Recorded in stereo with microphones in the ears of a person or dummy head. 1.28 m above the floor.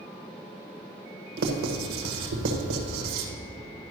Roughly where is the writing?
Right.